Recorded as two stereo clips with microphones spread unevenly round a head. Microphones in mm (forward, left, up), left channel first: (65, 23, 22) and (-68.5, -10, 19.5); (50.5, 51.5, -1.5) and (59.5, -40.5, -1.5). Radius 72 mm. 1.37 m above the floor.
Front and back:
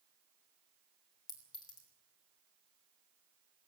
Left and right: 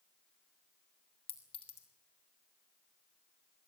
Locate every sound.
1.3 s a clink: 75° left, 4 m